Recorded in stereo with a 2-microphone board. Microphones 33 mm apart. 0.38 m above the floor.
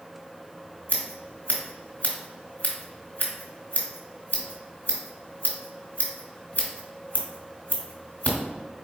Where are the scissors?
60° left (ahead or behind), 1.5 m.